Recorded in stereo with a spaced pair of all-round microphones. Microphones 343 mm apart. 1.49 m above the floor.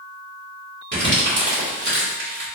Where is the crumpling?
35° right (ahead or behind), 2.0 m.